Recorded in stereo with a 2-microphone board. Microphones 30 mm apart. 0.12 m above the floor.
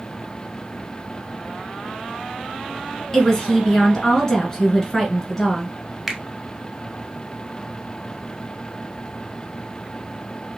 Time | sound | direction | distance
3.1 | a woman speaking | 20° left (ahead or behind) | 1.4 m
6.1 | a finger snap | 5° right (ahead or behind) | 1.1 m